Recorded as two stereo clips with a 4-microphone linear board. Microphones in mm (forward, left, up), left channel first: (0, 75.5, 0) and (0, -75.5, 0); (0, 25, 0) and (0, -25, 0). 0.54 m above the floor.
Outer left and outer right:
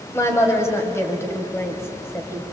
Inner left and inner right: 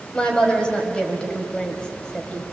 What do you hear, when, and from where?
0.1 s a woman speaking: 20° left (ahead or behind), 3.5 m